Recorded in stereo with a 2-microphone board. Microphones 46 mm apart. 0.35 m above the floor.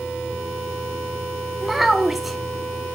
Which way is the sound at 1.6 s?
5° right (ahead or behind).